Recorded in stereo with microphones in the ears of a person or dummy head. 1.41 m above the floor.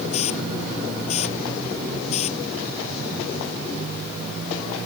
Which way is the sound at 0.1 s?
40° left (ahead or behind).